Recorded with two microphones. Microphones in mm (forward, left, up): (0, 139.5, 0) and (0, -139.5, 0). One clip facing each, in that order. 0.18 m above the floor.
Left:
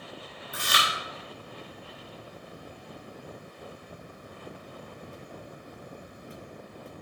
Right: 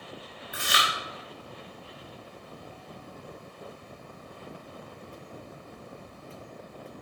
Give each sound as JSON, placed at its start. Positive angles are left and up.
{"t": 0.5, "sound": "chewing", "side_deg": -10, "distance_m": 3.0}